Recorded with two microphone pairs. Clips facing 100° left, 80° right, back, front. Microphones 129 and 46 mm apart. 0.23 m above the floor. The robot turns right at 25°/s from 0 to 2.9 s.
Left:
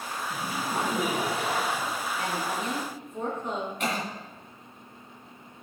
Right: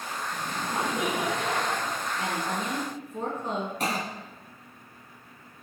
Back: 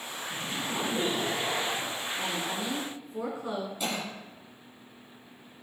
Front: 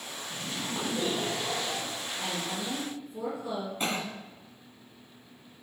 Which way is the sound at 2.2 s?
145° right.